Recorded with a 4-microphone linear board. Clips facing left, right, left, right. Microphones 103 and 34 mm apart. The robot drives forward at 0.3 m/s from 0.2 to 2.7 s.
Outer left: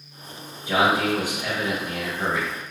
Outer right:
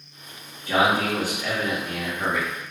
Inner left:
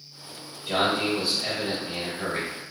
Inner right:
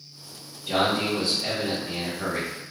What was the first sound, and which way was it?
A man speaking, 15° left (ahead or behind).